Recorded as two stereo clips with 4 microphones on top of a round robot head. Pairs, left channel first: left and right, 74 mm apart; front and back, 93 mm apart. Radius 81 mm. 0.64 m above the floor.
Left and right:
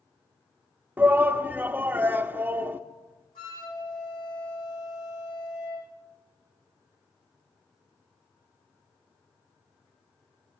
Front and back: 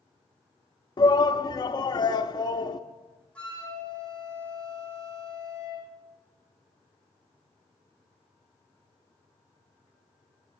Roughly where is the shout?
Ahead right.